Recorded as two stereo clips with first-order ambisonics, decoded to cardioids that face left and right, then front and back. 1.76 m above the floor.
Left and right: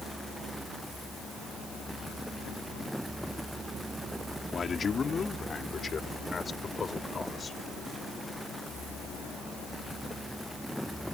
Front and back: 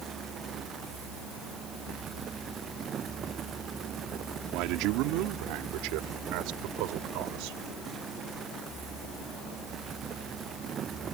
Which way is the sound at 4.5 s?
160° left.